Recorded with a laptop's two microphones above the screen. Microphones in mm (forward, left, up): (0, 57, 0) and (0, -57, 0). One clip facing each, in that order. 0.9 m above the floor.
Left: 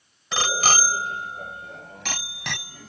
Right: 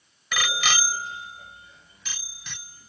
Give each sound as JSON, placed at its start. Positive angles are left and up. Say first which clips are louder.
{"t": 0.3, "sound": "a bicycle bell", "louder": "left 4 dB", "side_deg": 30}